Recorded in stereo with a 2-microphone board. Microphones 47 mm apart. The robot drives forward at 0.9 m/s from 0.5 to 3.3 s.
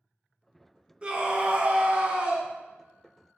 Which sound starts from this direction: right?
A scream, at 1.0 s.